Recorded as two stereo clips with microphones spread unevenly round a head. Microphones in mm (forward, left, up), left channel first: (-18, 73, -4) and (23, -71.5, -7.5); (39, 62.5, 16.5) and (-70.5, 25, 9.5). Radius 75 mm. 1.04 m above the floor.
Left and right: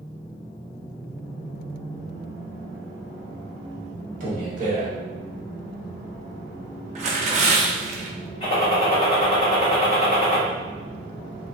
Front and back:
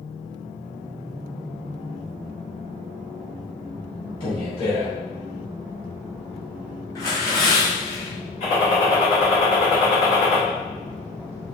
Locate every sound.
4.2 s a man speaking: 40° right, 1.6 m
7.0 s tearing paper: 40° right, 0.7 m
8.4 s a gunshot: 50° left, 1.7 m